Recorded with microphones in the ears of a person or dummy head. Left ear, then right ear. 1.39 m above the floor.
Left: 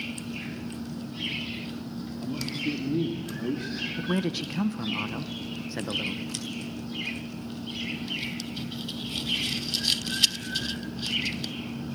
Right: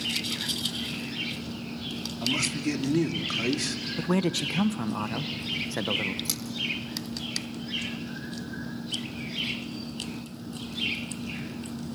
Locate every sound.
2.2 s a man speaking: 60° right (ahead or behind), 2.5 m
4.0 s a man speaking: 20° right (ahead or behind), 0.8 m
6.2 s scissors: 80° right, 7.5 m